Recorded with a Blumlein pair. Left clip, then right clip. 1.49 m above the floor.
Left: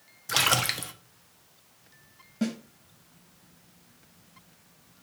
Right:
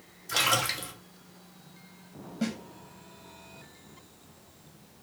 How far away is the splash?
About 0.6 m.